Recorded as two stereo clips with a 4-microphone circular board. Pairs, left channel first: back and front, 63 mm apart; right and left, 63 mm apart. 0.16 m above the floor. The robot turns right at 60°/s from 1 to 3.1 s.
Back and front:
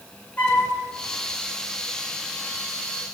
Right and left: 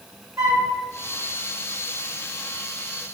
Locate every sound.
0.4 s a flute: 120° left, 1.7 m